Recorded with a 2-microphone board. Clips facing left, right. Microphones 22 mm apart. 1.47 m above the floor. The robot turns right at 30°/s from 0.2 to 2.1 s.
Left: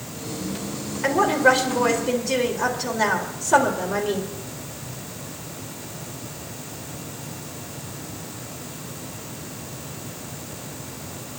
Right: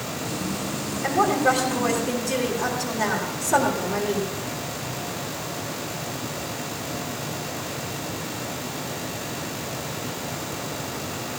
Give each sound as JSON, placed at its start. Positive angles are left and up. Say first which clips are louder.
{"t": 1.0, "sound": "a woman speaking", "louder": "left 3 dB", "azimuth_deg": 125, "distance_m": 4.0}